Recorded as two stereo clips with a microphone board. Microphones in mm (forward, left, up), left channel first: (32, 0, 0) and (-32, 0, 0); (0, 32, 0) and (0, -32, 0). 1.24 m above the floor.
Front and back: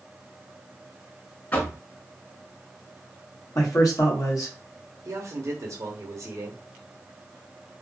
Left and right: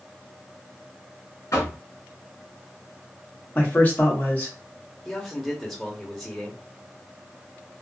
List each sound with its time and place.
1.5 s knocking: 60° left, 1.5 m
3.5 s a man speaking: 30° left, 1.4 m
5.0 s a man speaking: straight behind, 0.9 m